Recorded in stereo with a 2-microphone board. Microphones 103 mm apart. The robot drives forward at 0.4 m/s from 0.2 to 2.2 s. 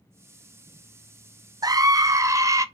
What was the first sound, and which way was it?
A scream, 40° right (ahead or behind).